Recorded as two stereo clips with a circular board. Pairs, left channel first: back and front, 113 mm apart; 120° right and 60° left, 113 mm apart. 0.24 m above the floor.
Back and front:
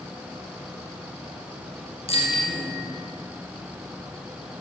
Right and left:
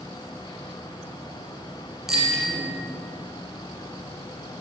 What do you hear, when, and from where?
2.1 s a bicycle bell: 145° left, 5 m